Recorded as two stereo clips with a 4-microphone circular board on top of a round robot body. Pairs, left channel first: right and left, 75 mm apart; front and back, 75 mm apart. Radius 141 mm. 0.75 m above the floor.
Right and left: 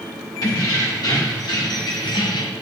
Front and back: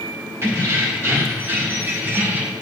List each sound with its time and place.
0.4 s keys jangling: 120° right, 1.9 m; by 2.5 s 110° right, 0.6 m